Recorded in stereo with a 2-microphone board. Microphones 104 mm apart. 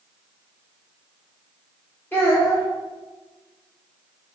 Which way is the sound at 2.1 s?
20° left (ahead or behind).